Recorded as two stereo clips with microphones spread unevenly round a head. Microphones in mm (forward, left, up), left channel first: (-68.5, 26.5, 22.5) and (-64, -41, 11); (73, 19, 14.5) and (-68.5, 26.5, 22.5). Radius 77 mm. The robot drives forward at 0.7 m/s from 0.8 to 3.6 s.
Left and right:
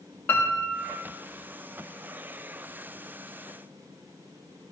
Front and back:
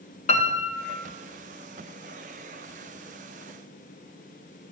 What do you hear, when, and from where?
0.3 s a piano: 20° left, 1.0 m; by 1.0 s 25° left, 0.9 m